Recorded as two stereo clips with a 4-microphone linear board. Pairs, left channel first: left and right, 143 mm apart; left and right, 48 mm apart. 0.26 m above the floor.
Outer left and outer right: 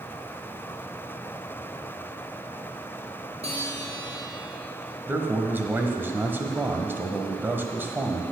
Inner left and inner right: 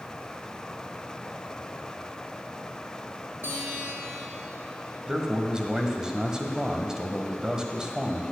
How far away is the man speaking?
About 1.5 m.